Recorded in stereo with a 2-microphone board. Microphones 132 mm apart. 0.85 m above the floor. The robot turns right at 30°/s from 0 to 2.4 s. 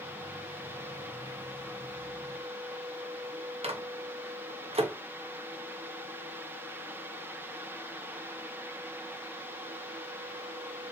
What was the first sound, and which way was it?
A microwave, 50° right (ahead or behind).